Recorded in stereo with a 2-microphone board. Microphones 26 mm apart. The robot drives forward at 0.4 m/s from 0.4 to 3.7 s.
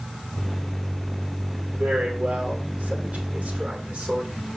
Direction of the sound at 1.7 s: 75° right (ahead or behind).